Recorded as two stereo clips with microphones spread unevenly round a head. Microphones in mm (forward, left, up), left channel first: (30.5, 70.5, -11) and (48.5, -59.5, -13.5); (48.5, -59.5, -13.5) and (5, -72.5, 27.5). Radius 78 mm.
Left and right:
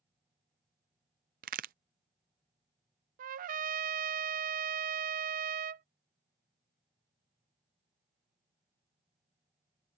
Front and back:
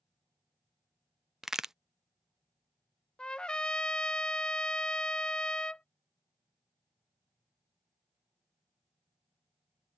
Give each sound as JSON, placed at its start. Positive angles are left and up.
{"t": 1.4, "sound": "a crack", "azimuth_deg": -105}
{"t": 3.2, "sound": "a trumpet", "azimuth_deg": -80}